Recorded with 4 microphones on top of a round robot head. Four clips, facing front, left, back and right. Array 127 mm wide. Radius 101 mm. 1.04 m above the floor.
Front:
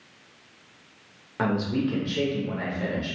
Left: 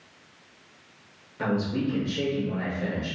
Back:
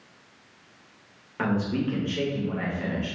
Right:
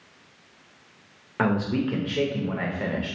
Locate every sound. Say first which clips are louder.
1.4 s a man speaking: right 3 dB, front 1 dB; 70° right, 1.0 m